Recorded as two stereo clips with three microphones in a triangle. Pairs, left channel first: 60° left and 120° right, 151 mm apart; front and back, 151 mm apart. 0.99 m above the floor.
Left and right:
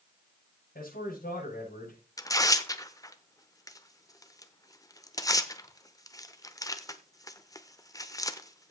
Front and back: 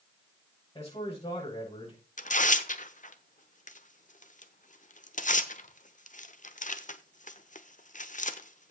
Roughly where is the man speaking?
Ahead left.